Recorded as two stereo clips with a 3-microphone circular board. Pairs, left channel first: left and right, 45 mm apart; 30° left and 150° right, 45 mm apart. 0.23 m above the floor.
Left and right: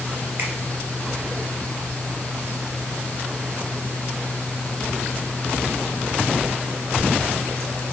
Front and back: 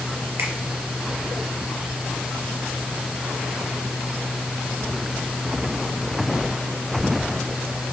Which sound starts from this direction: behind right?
A finger snap, at 0.4 s.